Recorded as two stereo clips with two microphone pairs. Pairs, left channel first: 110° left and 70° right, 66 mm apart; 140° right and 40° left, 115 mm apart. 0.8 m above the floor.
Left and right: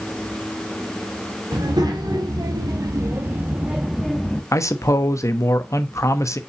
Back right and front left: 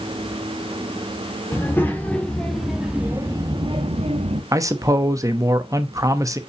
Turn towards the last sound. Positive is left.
turn(degrees=95)